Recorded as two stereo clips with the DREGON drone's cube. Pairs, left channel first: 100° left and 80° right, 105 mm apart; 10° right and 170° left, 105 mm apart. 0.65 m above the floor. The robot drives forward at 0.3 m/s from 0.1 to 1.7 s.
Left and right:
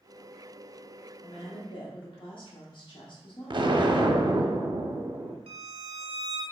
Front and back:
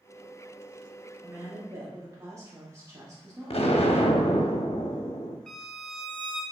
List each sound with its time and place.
1.2 s a woman speaking: 105° left, 1.0 m; by 4.5 s 115° left, 1.0 m
3.5 s an explosion: 35° right, 0.6 m
5.5 s a violin: 105° right, 1.3 m